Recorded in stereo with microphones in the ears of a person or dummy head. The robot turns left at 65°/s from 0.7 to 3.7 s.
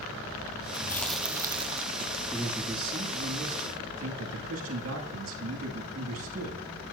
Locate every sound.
0.7 s chewing: 30° left, 1.1 m; by 2.2 s 70° right, 1.1 m
2.3 s a man speaking: straight ahead, 2.5 m; by 6.7 s 90° right, 2.5 m